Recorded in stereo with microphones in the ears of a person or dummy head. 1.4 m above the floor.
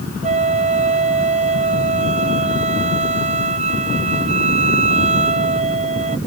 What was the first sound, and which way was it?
A flute, 35° right (ahead or behind).